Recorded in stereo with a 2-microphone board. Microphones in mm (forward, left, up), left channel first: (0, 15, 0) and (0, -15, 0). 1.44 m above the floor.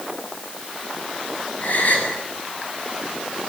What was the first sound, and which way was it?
A gasp, 60° left (ahead or behind).